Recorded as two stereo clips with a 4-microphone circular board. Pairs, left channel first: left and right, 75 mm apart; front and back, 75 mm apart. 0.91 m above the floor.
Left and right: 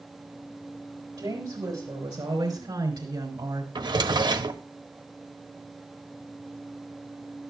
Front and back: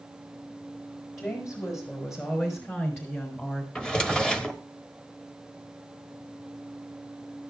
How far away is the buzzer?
No buzzer in this recording.